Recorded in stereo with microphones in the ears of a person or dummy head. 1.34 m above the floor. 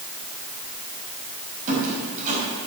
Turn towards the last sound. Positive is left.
turn(degrees=-40)  # may be behind; listen again after turning